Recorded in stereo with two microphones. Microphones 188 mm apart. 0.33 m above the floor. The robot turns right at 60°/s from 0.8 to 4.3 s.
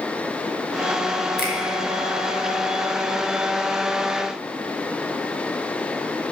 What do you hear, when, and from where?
1.4 s a finger snap: 60° left (ahead or behind), 2.5 m; by 1.6 s 55° left (ahead or behind), 2.5 m